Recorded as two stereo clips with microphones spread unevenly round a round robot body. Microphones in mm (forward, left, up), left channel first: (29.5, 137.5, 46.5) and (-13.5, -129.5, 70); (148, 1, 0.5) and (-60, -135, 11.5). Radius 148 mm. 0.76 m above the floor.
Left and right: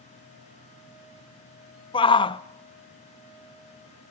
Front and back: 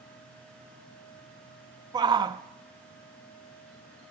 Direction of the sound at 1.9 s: 140° left.